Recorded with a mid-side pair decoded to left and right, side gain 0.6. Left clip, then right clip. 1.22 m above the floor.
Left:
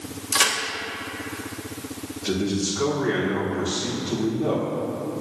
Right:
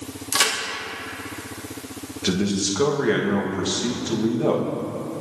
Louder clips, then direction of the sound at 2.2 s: Right 2 dB; 60° right.